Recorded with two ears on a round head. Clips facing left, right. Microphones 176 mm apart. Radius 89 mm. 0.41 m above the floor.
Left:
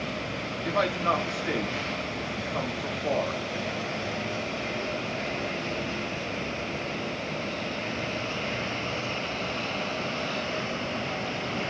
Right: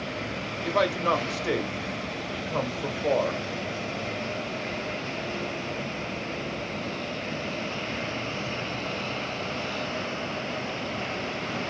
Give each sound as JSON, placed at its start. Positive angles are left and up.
{"t": 0.6, "sound": "a man speaking", "side_deg": -55, "distance_m": 1.5}